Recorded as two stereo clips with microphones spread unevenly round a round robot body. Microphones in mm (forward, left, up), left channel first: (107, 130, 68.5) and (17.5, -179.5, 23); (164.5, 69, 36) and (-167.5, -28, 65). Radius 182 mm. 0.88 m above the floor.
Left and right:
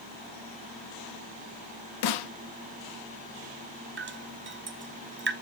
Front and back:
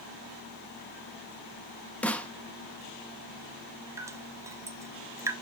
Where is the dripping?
80° right, 0.9 m.